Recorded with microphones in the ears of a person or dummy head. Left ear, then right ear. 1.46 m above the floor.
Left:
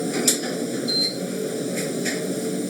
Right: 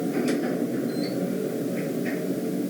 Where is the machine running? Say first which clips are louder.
Left 2 dB; 75° left (ahead or behind).